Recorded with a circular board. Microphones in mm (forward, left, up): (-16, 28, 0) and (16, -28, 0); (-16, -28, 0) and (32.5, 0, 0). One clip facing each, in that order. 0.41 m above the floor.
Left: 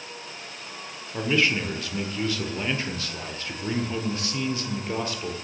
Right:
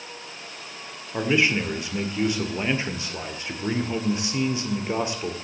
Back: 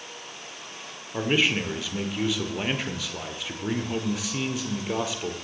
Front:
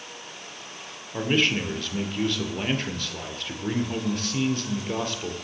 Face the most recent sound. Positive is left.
turn(degrees=-80)